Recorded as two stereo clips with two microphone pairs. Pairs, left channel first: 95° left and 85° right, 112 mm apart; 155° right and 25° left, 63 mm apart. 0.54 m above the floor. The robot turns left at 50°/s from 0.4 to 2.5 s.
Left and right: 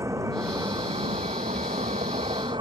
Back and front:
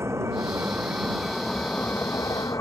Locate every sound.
0.0 s a vehicle: 20° right; by 2.6 s 125° right